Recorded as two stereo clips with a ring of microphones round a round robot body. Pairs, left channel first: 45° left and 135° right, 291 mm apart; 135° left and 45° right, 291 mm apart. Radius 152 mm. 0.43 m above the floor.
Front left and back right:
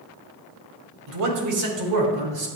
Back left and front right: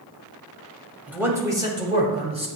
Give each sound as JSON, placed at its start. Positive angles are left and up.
{"t": 1.1, "sound": "a man speaking", "azimuth_deg": -130, "distance_m": 2.5}